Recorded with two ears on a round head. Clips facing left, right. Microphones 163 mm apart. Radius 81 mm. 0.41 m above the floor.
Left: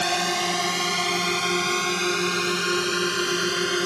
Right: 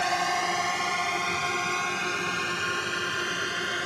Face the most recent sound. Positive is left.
turn(degrees=55)  # may be behind; listen again after turning